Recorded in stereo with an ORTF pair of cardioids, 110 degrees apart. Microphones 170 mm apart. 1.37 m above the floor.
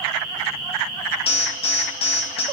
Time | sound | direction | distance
1.3 | an alarm | 35° left | 1.3 m